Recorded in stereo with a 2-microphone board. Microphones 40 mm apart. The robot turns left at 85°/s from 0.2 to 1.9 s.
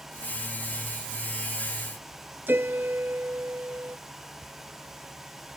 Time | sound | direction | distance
2.5 | a piano | 65° right (ahead or behind) | ?